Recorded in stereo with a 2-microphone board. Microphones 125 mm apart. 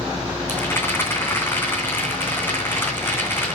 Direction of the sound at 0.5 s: 15° left (ahead or behind).